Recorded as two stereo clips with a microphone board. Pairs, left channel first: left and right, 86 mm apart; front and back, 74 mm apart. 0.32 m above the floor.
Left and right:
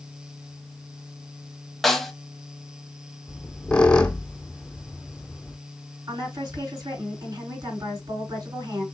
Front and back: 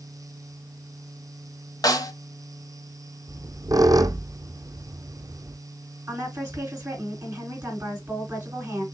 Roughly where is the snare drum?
Ahead.